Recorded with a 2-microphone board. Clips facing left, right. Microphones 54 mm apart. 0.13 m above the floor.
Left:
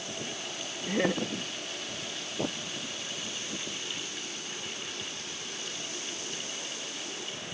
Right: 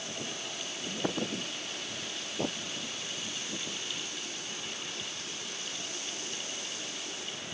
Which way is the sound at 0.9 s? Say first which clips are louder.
Left 6 dB; 70° left (ahead or behind).